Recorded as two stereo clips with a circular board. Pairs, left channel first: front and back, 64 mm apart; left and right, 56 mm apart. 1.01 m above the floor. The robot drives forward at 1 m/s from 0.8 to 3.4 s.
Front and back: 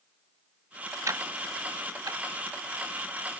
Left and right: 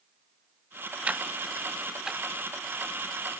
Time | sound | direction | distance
1.1 | ticking | 150° right | ?